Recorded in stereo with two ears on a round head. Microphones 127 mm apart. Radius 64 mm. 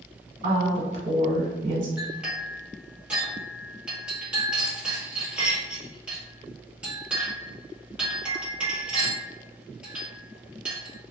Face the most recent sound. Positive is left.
turn(degrees=-5)  # may be behind; listen again after turning